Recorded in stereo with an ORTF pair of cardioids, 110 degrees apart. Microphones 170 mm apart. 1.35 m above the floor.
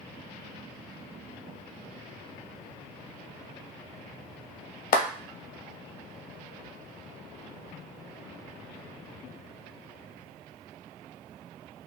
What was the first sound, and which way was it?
A clap, 55° left.